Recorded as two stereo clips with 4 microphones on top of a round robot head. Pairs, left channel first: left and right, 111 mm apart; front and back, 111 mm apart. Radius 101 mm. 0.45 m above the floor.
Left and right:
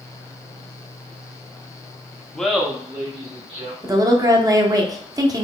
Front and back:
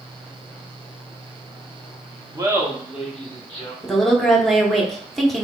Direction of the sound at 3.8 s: 85° right.